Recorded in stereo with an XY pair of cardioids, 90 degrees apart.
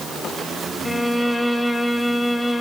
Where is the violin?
15° left, 1.0 m.